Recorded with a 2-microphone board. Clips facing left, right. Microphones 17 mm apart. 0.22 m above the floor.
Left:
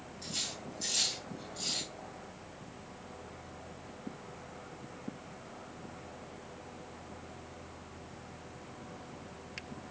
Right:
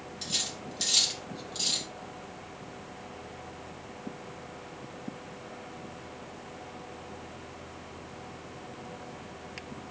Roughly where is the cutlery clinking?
Right.